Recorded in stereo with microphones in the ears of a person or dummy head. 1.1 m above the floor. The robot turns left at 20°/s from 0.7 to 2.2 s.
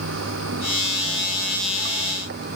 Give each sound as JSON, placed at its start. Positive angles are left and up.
{"t": 0.0, "sound": "running water", "azimuth_deg": -95}